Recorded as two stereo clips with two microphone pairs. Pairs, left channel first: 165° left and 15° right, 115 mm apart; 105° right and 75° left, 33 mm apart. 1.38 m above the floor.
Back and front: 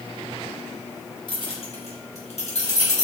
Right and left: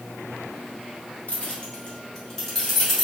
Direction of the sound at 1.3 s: 155° right.